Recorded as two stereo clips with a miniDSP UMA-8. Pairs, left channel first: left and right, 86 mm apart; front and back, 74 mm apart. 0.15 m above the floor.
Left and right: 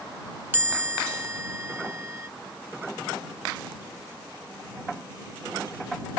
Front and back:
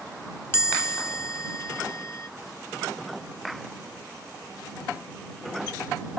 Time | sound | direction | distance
0.5 | a chime | 35° right | ?